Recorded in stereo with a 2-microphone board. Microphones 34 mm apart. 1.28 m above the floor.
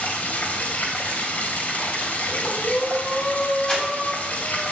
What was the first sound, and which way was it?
Running water, 60° left (ahead or behind).